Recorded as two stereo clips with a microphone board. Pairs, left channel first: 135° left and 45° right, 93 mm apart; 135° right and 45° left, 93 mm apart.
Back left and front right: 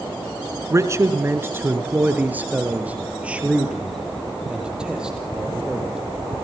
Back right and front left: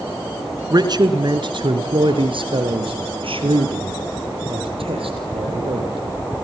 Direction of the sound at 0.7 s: 5° left.